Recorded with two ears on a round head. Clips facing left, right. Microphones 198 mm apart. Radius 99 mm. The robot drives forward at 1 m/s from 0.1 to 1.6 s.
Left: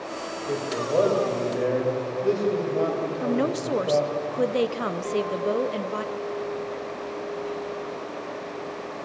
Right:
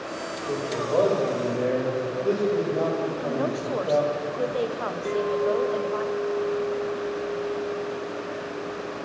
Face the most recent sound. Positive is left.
turn(degrees=-25)  # may be behind; listen again after turning